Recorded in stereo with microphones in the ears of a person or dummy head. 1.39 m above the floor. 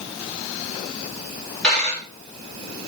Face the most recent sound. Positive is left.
turn(degrees=5)  # may be behind; listen again after turning